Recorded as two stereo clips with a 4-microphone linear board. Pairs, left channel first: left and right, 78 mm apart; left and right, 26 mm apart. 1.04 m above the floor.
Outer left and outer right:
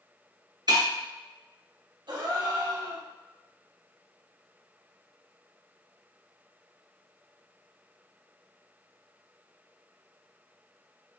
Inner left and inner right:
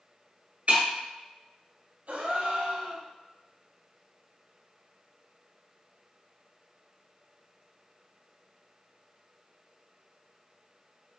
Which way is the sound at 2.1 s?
70° right (ahead or behind).